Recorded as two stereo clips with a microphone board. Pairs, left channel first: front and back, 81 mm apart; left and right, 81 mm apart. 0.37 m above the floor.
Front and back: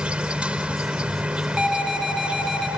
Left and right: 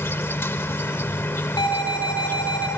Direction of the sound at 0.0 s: 120° left.